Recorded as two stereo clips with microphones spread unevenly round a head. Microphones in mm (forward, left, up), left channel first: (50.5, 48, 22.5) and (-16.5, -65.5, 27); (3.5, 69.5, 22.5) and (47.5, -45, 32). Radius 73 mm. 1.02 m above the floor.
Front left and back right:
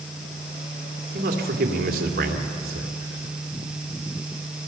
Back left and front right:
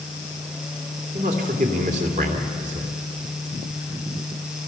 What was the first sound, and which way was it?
A man speaking, 110° right.